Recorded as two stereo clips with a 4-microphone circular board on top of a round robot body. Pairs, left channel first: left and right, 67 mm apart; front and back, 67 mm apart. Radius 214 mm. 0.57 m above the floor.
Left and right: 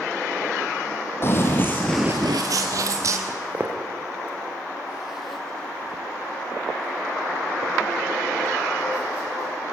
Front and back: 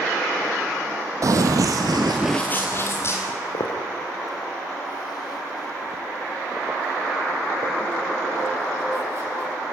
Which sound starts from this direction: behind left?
Running footsteps, at 1.2 s.